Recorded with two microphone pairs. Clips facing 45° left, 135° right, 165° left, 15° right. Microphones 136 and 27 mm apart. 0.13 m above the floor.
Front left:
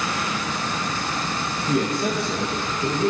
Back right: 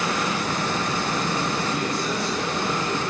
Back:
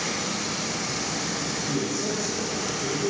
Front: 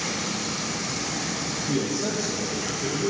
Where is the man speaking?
45° left, 4.5 m; by 3.1 s 65° left, 4.5 m.